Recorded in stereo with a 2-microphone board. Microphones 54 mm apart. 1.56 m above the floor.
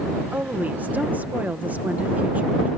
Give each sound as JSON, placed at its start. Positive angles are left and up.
{"t": 0.3, "sound": "a woman speaking", "side_deg": -30}